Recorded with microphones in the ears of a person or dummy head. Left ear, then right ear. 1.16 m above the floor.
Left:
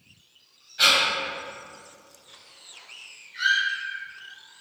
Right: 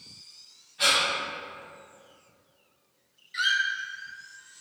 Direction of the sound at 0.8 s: 45° left (ahead or behind).